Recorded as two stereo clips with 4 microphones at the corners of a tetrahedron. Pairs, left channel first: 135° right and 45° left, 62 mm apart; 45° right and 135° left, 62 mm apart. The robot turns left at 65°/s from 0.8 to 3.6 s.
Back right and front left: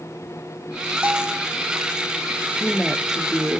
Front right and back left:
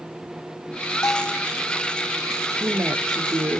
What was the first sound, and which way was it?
A bell, 20° right.